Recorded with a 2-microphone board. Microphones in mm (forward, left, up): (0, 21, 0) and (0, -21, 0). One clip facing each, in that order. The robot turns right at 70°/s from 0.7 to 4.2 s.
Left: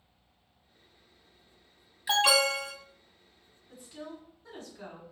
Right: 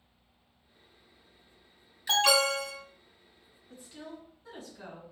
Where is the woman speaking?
5° left (ahead or behind), 1.4 m; by 5.0 s 10° right (ahead or behind), 1.4 m.